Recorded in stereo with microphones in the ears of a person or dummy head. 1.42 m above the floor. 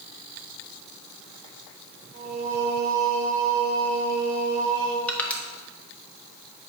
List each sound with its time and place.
2.1 s singing: 30° right (ahead or behind), 1.2 m
5.1 s crushing: 10° left (ahead or behind), 1.1 m